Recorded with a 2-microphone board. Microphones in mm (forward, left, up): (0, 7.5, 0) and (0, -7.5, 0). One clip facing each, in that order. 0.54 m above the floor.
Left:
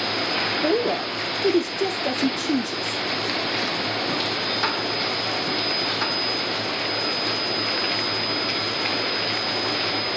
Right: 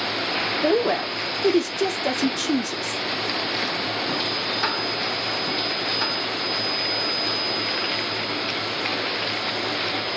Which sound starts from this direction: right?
A woman speaking, at 0.6 s.